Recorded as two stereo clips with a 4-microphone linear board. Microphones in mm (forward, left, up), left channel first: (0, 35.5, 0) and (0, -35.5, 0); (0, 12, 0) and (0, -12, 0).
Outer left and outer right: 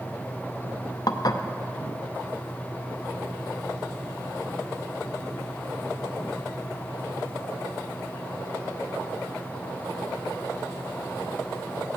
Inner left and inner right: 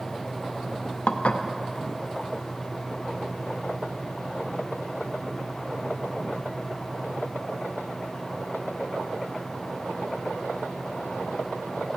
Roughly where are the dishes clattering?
Left.